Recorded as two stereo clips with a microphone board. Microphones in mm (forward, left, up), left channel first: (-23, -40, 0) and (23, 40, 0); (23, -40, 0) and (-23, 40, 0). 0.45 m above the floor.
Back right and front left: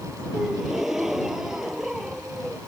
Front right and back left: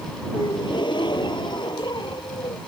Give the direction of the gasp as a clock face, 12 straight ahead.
1 o'clock.